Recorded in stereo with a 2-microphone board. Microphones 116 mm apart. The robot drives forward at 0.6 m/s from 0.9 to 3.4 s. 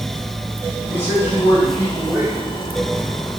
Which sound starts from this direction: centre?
A man speaking, at 0.9 s.